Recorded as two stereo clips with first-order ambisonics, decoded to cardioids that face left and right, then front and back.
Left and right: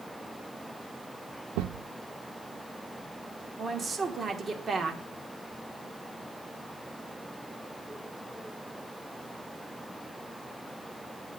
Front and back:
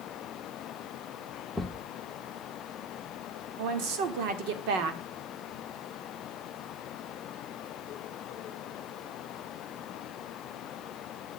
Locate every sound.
1.6 s a thud: 90° right, 0.6 m
3.6 s a woman speaking: 165° right, 1.5 m